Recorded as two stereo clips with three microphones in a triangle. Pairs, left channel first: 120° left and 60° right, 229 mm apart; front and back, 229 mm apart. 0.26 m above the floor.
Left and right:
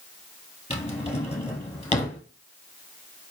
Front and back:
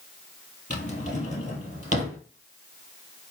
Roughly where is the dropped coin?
No dropped coin in this recording.